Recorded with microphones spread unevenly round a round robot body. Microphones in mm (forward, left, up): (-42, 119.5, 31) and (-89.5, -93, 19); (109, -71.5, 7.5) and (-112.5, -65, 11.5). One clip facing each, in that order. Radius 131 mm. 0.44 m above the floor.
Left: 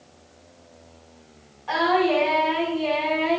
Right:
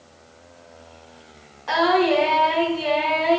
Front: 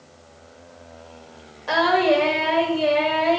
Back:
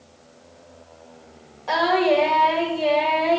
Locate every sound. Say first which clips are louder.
1.7 s singing: right 2 dB, even; 80° right, 1.5 m